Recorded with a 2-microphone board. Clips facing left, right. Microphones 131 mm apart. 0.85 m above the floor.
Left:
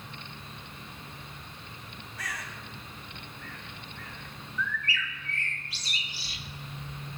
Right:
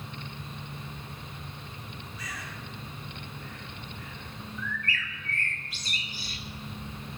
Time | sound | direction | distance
2.2 | a bird | 80° left | 2.5 m
4.6 | a bird | 50° right (ahead or behind) | 1.4 m